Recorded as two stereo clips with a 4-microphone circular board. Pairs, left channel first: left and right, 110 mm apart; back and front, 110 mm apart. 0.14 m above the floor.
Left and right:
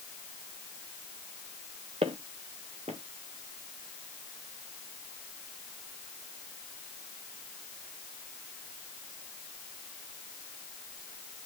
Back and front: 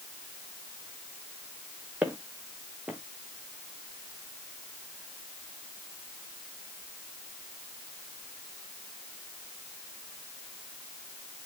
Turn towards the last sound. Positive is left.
turn(degrees=-75)